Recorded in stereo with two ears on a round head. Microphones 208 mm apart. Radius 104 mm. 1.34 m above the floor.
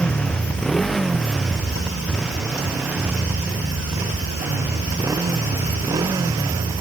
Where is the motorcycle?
5° left (ahead or behind); by 6.8 s 15° right (ahead or behind).